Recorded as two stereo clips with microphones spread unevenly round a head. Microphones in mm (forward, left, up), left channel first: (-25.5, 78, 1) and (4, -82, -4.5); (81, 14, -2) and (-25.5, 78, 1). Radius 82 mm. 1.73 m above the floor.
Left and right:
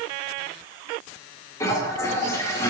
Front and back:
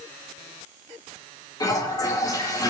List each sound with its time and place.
1.6 s a toilet flushing: 30° left, 5 m